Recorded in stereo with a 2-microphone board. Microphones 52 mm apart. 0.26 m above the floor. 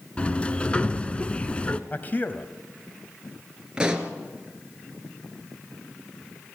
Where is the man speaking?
35° left (ahead or behind), 1.3 m.